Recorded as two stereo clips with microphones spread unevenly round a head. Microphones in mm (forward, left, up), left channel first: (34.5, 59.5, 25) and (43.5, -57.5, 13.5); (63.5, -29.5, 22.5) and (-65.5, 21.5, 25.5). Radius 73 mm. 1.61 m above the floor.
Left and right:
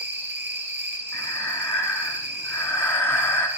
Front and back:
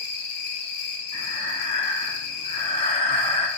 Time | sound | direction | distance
0.0 | an insect | 10° right | 4.5 m
1.1 | breathing | 25° left | 2.5 m